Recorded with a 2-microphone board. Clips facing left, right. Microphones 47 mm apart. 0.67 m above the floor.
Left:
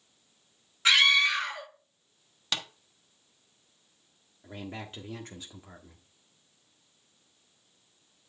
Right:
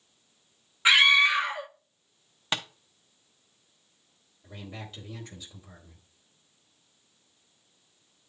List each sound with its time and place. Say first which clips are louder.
0.8 s a scream: right 3 dB; 20° right (ahead or behind), 0.7 m
2.5 s tapping: right 3 dB; 25° right (ahead or behind), 0.9 m
4.4 s a man speaking: left 2 dB; 40° left (ahead or behind), 1.3 m